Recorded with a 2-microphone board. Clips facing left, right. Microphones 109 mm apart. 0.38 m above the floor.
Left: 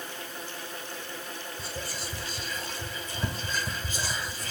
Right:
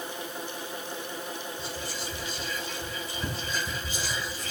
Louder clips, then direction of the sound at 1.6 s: Right 1 dB; 40° left (ahead or behind).